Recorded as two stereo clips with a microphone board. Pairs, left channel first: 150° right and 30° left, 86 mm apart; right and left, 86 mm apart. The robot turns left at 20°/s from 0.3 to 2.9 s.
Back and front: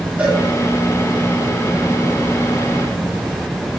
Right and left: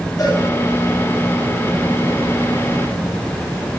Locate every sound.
0.2 s a cowbell: 45° right, 7.5 m